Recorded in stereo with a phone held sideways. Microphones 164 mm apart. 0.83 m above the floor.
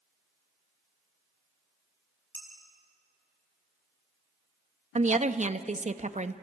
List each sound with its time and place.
2.4 s dishes clattering: 10° left (ahead or behind), 5 m
5.0 s a woman speaking: 45° right (ahead or behind), 0.7 m